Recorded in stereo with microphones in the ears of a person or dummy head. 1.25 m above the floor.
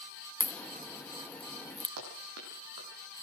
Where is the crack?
10° left (ahead or behind), 0.8 m.